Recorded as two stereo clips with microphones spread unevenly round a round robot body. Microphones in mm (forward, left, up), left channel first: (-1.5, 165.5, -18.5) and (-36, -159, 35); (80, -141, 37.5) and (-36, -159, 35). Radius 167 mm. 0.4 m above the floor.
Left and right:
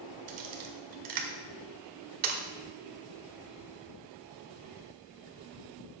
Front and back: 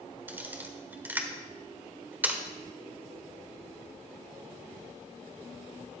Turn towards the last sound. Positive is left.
turn(degrees=-100)